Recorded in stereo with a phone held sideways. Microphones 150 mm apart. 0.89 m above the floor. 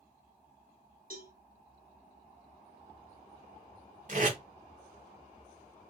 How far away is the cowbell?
About 1.4 m.